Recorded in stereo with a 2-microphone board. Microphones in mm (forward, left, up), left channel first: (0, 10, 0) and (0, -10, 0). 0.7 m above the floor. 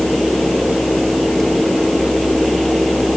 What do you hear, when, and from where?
Only background noise.